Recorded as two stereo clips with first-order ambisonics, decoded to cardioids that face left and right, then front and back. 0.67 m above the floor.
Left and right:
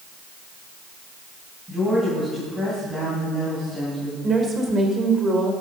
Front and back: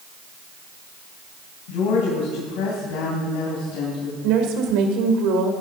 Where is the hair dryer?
I don't hear a hair dryer.